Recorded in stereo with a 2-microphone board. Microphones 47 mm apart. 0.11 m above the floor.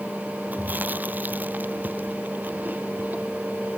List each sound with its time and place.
0.5 s chewing: 40° right (ahead or behind)